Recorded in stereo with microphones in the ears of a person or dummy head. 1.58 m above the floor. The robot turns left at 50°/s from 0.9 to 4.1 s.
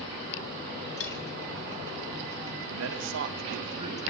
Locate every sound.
1.0 s cutlery clinking: 75° left (ahead or behind), 2.5 m; by 1.2 s 70° left (ahead or behind), 2.5 m
2.7 s a man speaking: 95° right, 2.5 m; by 4.0 s 160° right, 2.5 m